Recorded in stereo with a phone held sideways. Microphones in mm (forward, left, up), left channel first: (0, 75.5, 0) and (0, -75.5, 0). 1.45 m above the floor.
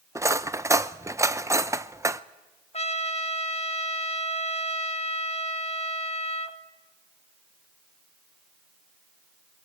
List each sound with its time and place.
0.1 s cutlery clinking: 20° right (ahead or behind), 0.5 m
2.7 s a trumpet: 45° left (ahead or behind), 1.1 m